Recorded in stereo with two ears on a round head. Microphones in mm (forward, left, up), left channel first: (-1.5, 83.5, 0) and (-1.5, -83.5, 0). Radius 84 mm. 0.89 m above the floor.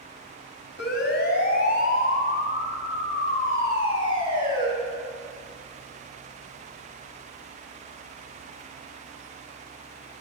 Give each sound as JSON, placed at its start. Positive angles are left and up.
{"t": 0.8, "sound": "a siren", "side_deg": 65, "distance_m": 5.5}